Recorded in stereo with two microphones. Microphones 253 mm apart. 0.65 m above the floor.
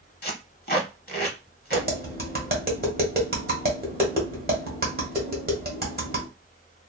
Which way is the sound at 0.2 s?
40° left (ahead or behind).